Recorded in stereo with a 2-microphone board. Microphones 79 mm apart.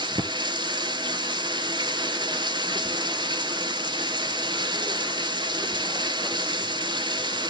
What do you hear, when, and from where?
0.0 s running water: 75° right (ahead or behind), 0.7 m